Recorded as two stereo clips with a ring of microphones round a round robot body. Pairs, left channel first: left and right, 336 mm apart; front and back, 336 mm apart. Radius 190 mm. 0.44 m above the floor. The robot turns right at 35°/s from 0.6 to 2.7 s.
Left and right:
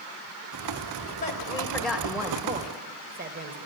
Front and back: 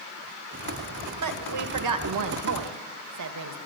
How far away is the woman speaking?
About 2.0 m.